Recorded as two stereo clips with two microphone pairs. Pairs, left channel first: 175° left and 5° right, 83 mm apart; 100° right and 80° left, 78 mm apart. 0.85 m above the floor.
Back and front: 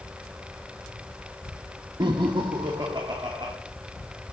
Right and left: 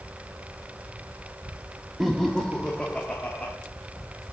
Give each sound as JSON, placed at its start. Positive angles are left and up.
{"t": 2.0, "sound": "laughter", "azimuth_deg": -10, "distance_m": 0.7}